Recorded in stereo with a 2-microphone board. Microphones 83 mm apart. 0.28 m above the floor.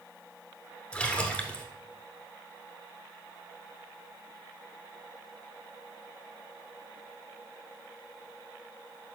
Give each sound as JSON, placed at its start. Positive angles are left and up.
{"t": 0.9, "sound": "a splash", "side_deg": 15, "distance_m": 0.9}